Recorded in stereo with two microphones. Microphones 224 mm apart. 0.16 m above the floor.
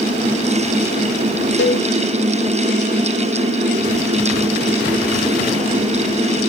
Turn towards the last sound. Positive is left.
turn(degrees=55)  # may be behind; listen again after turning